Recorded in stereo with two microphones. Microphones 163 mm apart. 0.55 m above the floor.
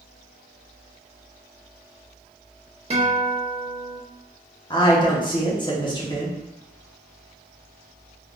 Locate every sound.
2.9 s a guitar: 40° right (ahead or behind), 0.7 m
4.7 s a woman speaking: 30° left (ahead or behind), 0.8 m